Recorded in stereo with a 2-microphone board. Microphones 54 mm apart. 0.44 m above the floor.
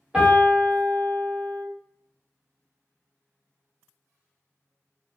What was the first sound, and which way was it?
A piano, 15° right (ahead or behind).